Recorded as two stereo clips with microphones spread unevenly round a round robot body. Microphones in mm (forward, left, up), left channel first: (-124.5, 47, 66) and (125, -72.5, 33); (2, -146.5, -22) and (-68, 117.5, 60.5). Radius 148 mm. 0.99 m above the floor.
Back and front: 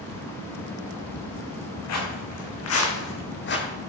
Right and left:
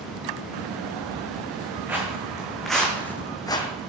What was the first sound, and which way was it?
Footsteps, 175° right.